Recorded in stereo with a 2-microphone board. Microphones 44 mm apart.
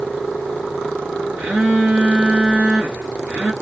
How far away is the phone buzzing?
About 1.3 m.